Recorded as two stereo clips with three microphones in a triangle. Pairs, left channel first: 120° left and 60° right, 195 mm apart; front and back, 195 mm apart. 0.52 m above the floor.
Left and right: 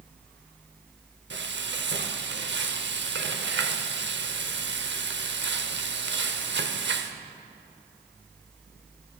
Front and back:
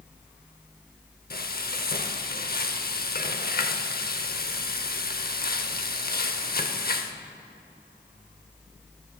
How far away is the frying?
About 0.7 m.